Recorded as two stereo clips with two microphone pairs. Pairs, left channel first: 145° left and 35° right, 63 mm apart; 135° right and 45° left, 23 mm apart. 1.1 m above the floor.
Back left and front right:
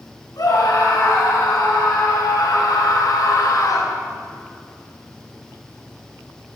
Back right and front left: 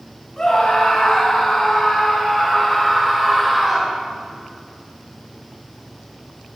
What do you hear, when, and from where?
0.4 s a scream: 145° left, 8 m; by 4.0 s 120° left, 4 m